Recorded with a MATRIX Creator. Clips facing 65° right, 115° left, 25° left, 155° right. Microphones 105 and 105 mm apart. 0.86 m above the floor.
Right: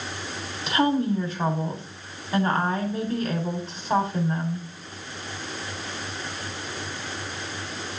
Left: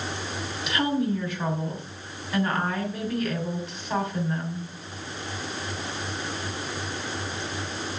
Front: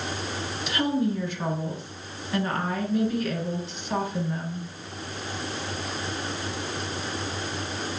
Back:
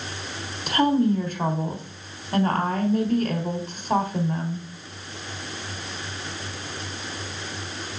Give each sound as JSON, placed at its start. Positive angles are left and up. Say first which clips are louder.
{"t": 0.7, "sound": "a woman speaking", "louder": "right 3 dB, back 6 dB", "azimuth_deg": -125, "distance_m": 3.5}